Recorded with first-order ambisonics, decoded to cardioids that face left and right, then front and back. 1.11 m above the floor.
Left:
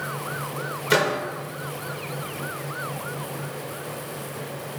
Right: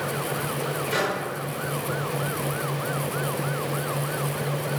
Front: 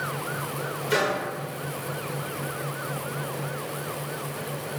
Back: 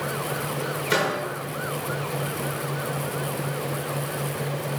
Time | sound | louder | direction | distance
0.9 | a microwave | left 6 dB, even | 110° left | 0.5 m